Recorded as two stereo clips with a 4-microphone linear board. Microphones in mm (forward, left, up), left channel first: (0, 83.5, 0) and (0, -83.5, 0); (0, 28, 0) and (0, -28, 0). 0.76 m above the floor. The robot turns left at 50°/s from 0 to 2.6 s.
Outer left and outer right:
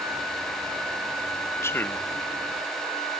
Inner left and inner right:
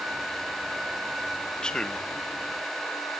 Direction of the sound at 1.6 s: 15° left (ahead or behind).